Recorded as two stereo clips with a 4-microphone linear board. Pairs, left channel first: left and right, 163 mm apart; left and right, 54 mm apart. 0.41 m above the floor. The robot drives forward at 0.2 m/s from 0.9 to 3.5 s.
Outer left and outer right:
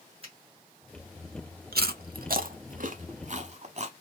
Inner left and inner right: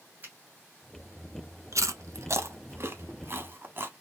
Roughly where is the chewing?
Right.